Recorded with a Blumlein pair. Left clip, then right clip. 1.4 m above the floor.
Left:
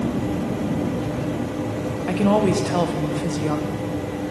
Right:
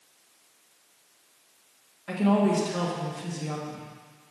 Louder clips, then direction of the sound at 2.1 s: Left 5 dB; 55° left.